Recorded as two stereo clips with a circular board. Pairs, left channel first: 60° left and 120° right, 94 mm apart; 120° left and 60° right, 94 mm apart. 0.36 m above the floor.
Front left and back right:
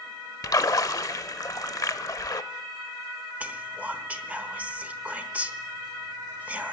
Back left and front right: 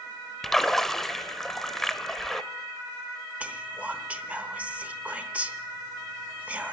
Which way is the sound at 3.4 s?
90° right.